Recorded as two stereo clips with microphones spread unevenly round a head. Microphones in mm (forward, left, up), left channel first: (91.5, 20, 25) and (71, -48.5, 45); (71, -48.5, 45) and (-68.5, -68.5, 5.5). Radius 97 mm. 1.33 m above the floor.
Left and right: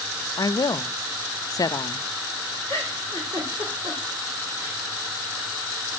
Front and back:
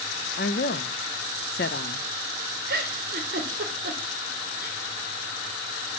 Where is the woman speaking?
30° left, 0.7 m.